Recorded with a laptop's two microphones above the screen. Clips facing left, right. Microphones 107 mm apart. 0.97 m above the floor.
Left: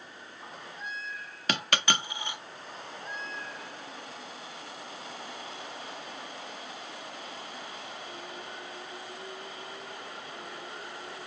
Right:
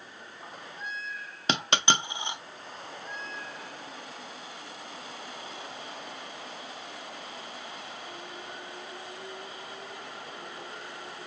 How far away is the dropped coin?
About 0.5 m.